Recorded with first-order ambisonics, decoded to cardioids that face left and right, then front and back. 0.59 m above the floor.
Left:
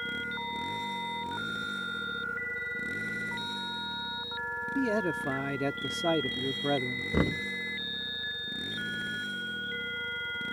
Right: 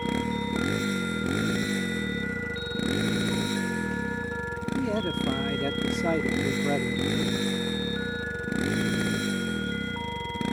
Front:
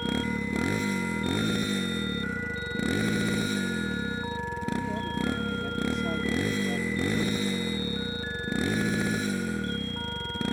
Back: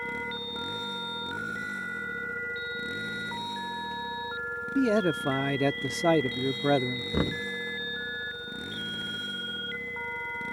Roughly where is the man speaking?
Behind.